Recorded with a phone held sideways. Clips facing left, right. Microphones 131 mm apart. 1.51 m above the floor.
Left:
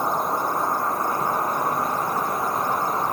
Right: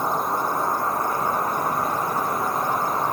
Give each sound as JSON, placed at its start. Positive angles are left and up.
{"t": 0.0, "sound": "an insect", "side_deg": 30, "distance_m": 1.9}